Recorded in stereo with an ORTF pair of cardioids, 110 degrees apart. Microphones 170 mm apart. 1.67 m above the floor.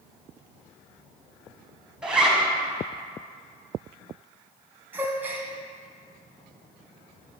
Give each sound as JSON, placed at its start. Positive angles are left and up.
{"t": 2.0, "sound": "a zipper", "azimuth_deg": -5, "distance_m": 1.2}
{"t": 4.9, "sound": "a gasp", "azimuth_deg": -10, "distance_m": 1.0}